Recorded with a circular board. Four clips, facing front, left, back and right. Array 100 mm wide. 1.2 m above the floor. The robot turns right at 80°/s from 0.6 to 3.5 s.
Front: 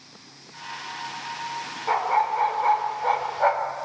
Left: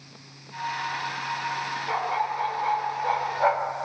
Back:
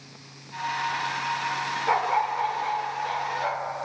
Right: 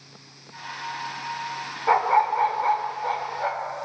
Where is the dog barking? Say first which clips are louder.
Right 9 dB, front 2 dB; 100° right, 1.2 m; by 3.8 s 30° left, 1.2 m.